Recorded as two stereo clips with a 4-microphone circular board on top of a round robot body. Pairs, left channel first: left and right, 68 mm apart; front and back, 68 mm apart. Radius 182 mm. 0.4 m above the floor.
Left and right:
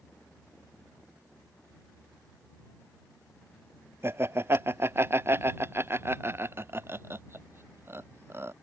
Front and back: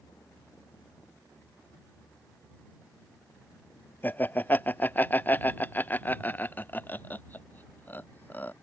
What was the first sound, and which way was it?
Laughter, 50° right.